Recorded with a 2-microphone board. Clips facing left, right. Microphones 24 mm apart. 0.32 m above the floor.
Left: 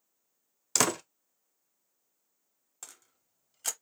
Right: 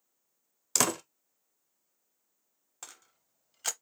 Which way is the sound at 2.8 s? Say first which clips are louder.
Right 2 dB; 20° right (ahead or behind).